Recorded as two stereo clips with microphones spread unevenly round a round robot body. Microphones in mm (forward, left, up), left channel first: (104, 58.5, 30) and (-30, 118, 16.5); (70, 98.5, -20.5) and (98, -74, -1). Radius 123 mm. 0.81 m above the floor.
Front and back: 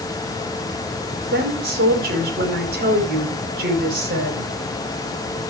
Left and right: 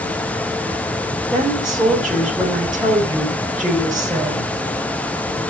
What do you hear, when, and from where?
1.3 s a woman speaking: 170° right, 4.5 m